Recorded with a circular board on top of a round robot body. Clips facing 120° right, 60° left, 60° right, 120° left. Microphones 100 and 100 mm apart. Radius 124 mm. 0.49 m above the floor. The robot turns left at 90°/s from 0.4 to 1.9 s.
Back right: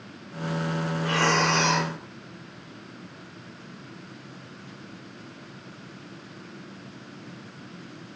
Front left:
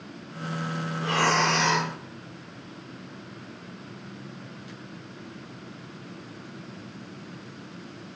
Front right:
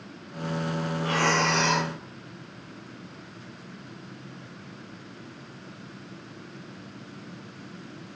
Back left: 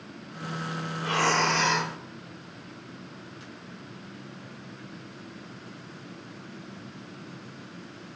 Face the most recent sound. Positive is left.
turn(degrees=-80)